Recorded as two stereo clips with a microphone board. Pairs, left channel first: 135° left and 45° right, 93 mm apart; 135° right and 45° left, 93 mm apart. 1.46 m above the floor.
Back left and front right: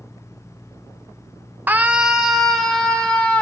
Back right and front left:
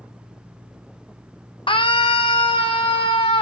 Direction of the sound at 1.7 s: 115° right.